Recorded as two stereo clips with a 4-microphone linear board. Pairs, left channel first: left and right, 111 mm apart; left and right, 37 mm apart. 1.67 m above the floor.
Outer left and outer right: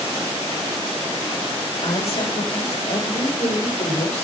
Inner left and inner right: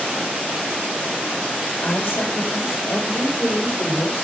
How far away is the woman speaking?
About 8 m.